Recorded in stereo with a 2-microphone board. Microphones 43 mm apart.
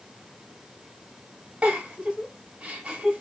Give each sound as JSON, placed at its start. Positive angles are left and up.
{"t": 1.6, "sound": "a giggle", "side_deg": -35, "distance_m": 0.9}